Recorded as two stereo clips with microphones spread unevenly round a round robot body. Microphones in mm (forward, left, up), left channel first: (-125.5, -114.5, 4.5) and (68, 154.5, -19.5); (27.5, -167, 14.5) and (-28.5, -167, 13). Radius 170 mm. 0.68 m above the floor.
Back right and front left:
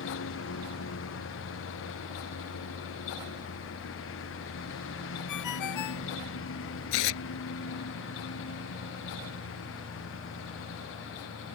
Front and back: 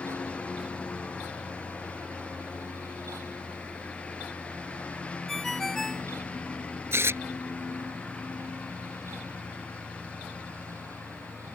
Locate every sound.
0.0 s a lawn mower: 70° right
5.3 s a ringtone: 85° right
6.9 s tearing paper: 135° right